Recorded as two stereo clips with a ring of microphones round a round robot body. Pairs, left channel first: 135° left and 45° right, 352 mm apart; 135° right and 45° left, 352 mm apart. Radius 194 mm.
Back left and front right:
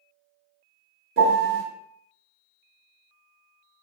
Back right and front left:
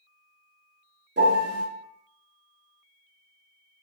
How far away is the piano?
About 1.1 m.